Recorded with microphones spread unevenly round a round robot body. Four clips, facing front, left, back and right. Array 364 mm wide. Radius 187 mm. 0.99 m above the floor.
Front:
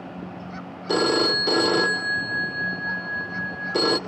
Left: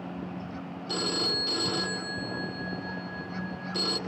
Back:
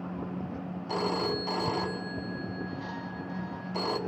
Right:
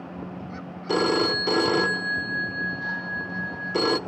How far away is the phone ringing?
About 1.1 m.